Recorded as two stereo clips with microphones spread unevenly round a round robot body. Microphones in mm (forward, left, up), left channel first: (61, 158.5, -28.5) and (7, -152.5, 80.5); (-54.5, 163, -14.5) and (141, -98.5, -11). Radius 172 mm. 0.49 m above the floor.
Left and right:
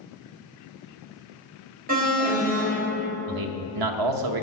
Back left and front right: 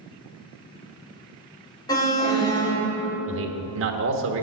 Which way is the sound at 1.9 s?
175° right.